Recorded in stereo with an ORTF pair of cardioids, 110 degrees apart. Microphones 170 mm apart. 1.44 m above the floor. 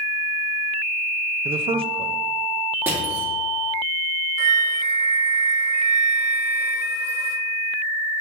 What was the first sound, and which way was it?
A man speaking, 35° right.